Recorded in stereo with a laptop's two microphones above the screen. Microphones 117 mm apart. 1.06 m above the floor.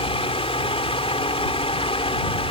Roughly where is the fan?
Left.